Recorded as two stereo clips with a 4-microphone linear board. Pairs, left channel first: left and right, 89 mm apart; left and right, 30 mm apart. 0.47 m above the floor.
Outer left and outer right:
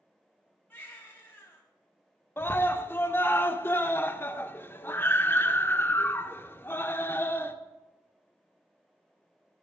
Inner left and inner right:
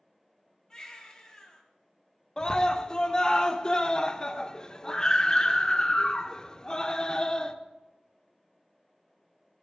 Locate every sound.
0.7 s a baby crying: 20° left (ahead or behind), 2 m
2.4 s a scream: 25° left (ahead or behind), 0.7 m